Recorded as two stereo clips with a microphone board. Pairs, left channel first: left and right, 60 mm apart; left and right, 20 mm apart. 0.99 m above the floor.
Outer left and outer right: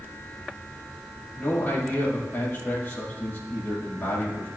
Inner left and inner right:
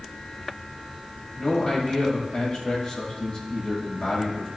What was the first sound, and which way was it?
A man speaking, 35° left (ahead or behind).